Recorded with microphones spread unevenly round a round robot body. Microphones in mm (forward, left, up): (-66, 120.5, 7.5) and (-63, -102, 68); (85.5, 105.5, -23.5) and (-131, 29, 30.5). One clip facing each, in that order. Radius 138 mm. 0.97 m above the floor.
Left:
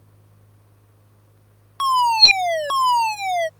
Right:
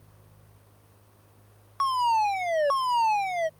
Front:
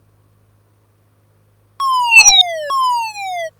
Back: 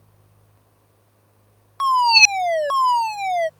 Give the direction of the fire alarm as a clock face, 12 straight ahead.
10 o'clock.